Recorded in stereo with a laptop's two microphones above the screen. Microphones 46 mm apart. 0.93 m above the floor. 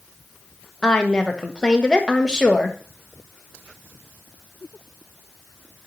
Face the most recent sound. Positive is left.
turn(degrees=20)  # may be behind; listen again after turning